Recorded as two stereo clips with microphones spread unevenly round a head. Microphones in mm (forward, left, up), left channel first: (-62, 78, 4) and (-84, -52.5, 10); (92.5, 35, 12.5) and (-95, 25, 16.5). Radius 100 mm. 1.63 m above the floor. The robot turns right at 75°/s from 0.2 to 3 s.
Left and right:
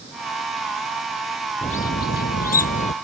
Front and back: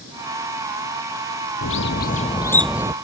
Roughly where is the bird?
Ahead.